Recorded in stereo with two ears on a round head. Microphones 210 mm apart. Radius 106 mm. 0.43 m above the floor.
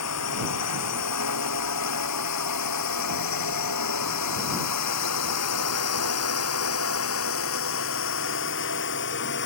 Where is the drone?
80° left; by 9.4 s 50° left (ahead or behind).